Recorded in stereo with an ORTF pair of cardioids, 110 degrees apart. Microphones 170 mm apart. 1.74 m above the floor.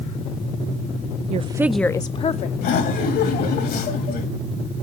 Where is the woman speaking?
45° right, 0.5 m; by 2.5 s 45° left, 0.9 m.